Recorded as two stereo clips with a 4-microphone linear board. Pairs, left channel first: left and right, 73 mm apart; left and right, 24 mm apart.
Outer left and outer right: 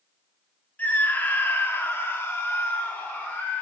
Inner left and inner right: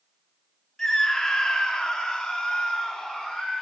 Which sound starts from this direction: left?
A scream, at 0.8 s.